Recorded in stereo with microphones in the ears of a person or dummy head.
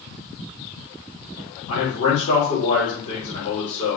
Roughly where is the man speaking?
Left.